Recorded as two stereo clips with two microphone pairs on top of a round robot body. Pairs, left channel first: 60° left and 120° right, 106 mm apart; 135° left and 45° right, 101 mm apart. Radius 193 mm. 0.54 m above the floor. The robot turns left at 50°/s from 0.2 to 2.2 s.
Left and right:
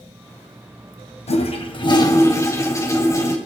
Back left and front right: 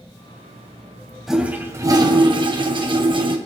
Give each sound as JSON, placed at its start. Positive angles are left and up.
{"t": 1.3, "sound": "a toilet flushing", "azimuth_deg": 40, "distance_m": 1.8}